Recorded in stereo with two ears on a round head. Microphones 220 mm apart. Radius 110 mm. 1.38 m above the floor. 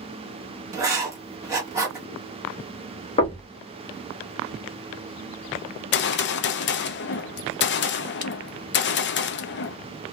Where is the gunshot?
45° left (ahead or behind), 0.6 m.